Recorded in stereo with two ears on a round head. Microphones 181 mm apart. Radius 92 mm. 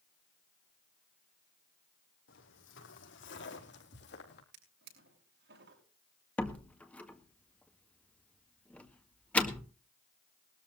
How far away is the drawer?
About 7 m.